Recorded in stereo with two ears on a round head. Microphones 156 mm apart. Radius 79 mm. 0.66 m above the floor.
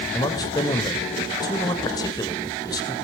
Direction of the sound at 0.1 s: 20° left (ahead or behind).